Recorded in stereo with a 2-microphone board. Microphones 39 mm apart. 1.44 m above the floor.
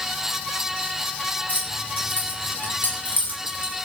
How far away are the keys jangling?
About 9.5 m.